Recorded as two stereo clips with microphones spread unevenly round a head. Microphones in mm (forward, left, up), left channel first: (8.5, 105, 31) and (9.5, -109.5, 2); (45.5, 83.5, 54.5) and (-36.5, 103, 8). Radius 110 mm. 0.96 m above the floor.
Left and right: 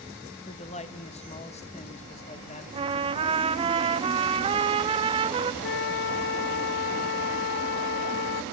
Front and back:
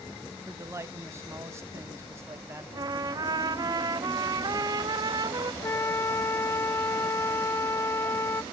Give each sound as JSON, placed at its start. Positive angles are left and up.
{"t": 0.5, "sound": "a man speaking", "azimuth_deg": 150, "distance_m": 1.3}
{"t": 2.7, "sound": "a trumpet", "azimuth_deg": -155, "distance_m": 0.6}
{"t": 5.6, "sound": "a flute", "azimuth_deg": 70, "distance_m": 0.5}